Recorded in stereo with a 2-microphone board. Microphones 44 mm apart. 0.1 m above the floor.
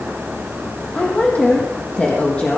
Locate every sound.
0.9 s a woman speaking: 35° left (ahead or behind), 4 m